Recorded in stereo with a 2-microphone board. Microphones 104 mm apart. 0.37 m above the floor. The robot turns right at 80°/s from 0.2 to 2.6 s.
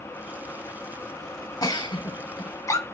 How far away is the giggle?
About 0.7 m.